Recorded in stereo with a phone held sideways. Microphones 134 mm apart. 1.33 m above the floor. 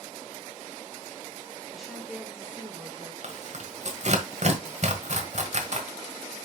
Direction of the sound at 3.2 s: 55° right (ahead or behind).